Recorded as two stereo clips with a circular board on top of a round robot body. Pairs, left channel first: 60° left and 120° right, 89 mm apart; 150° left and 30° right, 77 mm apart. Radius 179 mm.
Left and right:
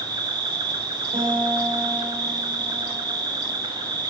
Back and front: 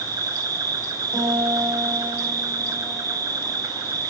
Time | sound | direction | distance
0.0 | an insect | 75° right | 0.9 m
1.1 | a guitar | 90° right | 5.5 m